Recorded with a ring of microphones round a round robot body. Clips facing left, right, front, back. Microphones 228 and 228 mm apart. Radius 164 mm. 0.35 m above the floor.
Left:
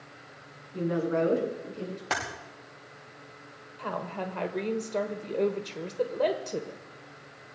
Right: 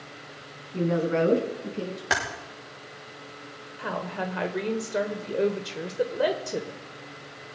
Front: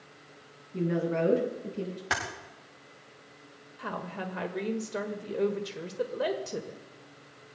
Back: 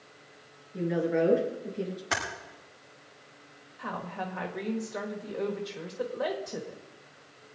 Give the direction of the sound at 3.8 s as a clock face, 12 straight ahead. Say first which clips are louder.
Right 3 dB, even; 1 o'clock.